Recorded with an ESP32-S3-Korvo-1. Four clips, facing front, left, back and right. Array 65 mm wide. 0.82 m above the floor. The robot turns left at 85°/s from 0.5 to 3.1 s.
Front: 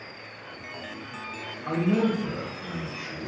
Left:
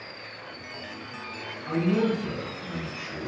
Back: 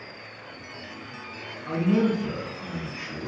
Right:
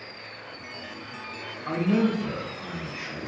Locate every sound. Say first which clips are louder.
1.7 s a man speaking: right 1 dB, back 1 dB; 45° right, 4 m; by 3.3 s 165° right, 4 m